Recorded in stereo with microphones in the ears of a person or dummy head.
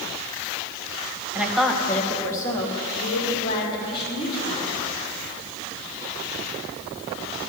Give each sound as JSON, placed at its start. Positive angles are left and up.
{"t": 1.4, "sound": "a woman speaking", "side_deg": -10, "distance_m": 1.1}